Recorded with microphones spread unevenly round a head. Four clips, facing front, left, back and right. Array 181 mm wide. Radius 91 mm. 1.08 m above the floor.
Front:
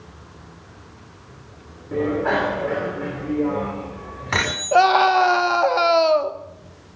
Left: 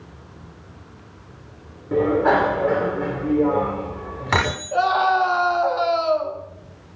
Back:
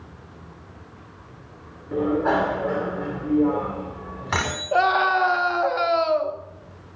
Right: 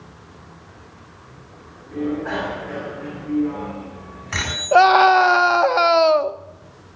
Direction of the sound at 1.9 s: 85° left.